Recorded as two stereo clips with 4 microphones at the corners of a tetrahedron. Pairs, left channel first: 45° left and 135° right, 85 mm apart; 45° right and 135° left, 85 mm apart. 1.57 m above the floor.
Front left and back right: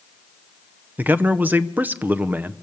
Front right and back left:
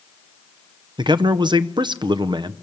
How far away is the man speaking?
About 0.7 m.